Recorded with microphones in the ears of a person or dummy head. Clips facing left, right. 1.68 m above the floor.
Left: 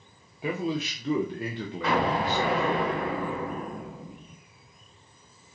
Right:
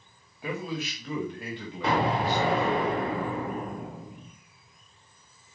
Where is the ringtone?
No ringtone in this recording.